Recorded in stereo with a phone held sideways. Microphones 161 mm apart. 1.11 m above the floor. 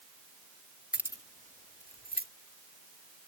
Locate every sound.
0.9 s keys jangling: 5° right (ahead or behind); by 2.3 s 75° right (ahead or behind)